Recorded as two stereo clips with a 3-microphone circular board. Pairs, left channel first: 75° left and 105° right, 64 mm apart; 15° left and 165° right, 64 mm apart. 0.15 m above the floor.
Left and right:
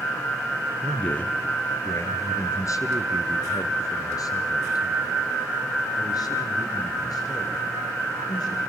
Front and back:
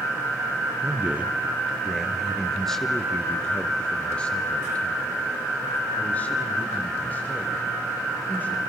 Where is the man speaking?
150° left, 1.6 m; by 8.6 s 75° left, 8.5 m.